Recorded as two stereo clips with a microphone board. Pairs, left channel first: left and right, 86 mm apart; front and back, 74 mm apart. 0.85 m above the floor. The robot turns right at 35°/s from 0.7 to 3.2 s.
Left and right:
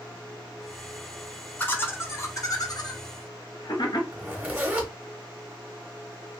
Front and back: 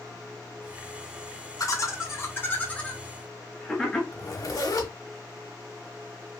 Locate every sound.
1.6 s laughter: 25° left, 0.8 m; by 4.0 s 80° left, 0.8 m
4.1 s a zipper: 20° right, 0.8 m